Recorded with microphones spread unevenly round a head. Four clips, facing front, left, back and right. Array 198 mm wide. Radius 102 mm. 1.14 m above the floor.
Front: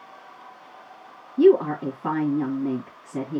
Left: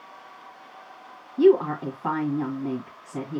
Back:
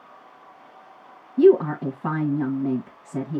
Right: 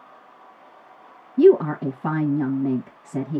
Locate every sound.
1.4 s a woman speaking: 120° right, 1.4 m